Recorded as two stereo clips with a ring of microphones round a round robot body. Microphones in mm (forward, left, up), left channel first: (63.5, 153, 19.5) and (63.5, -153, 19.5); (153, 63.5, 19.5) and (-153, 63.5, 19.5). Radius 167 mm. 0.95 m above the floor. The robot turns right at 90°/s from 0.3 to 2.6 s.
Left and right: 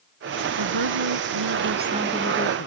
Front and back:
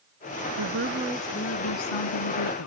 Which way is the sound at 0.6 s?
140° right.